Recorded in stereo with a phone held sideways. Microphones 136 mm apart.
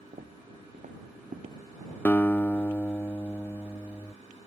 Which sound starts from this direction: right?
Footsteps, at 0.1 s.